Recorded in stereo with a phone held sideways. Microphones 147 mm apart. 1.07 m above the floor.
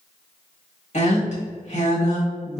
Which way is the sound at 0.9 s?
60° left (ahead or behind).